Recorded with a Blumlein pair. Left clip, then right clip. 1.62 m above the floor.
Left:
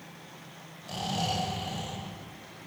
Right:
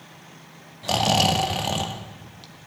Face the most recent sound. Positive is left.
turn(degrees=-50)